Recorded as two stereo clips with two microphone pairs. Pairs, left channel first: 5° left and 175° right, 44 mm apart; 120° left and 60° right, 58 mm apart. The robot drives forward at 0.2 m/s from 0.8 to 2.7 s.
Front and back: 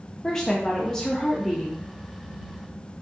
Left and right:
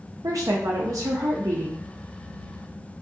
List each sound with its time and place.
0.2 s a woman speaking: 65° right, 0.6 m; by 1.8 s 85° right, 0.5 m